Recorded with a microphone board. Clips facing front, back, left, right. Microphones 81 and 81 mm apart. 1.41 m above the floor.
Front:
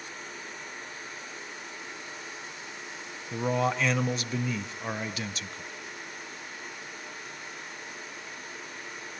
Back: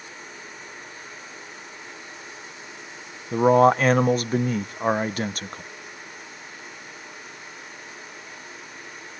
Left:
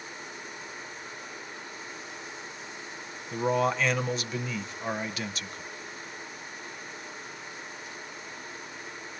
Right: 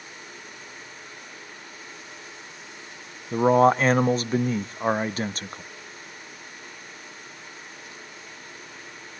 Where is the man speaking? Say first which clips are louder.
Back 12 dB, right 9 dB; 140° right, 0.6 m.